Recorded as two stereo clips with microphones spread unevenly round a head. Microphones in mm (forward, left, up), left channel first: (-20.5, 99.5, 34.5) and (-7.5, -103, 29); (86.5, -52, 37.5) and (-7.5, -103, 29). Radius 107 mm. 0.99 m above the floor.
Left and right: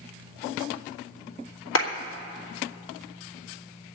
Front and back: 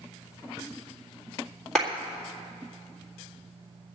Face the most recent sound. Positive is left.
turn(degrees=115)